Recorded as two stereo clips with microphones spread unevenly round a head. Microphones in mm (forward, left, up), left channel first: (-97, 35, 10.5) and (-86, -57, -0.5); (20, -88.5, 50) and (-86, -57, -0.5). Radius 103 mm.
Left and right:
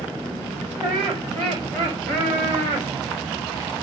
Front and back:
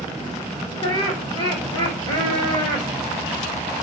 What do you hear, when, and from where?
0.8 s laughter: 70° right, 4.5 m; by 2.9 s 65° right, 5.5 m